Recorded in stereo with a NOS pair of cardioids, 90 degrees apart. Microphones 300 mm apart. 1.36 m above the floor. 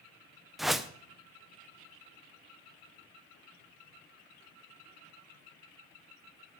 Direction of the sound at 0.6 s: Straight ahead.